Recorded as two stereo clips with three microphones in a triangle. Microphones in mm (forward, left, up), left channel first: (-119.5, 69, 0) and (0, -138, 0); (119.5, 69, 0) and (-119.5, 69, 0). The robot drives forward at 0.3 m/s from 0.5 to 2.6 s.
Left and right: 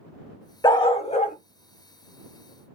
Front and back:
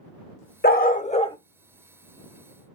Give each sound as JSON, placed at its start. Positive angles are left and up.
{"t": 0.6, "sound": "a dog barking", "azimuth_deg": 50, "distance_m": 0.6}